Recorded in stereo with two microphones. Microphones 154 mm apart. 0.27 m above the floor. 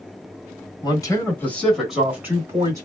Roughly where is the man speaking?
Left.